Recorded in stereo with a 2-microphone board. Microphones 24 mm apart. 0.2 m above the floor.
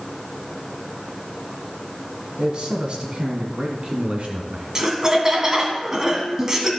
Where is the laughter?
25° right (ahead or behind), 1.7 m.